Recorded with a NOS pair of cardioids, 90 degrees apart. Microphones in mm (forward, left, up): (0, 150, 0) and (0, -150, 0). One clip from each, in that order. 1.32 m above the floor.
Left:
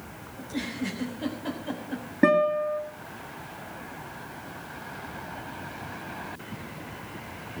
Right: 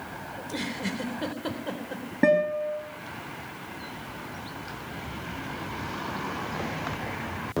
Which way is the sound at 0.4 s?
40° right.